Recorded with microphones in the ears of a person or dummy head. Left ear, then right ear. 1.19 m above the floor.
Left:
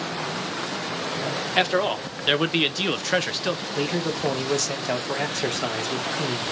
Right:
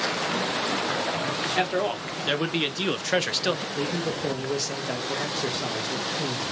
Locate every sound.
1.6 s a man speaking: 25° left (ahead or behind), 1.4 m; by 3.6 s 20° right (ahead or behind), 0.6 m
3.8 s a man speaking: 30° left (ahead or behind), 1.6 m